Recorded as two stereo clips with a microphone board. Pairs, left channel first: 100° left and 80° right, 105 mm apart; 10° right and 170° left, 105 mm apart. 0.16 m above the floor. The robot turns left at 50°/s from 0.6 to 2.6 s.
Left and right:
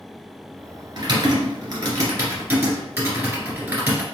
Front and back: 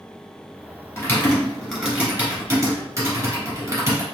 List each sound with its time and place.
1.0 s typing on a keyboard: 65° right, 1.6 m; by 4.0 s 150° right, 1.6 m